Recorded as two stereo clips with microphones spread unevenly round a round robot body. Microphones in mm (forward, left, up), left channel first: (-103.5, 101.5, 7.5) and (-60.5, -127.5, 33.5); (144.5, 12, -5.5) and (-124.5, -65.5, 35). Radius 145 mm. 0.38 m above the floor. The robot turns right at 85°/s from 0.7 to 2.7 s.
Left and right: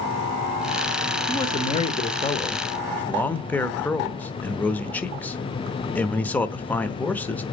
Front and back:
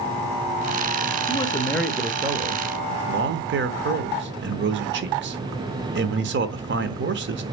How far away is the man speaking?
About 0.9 m.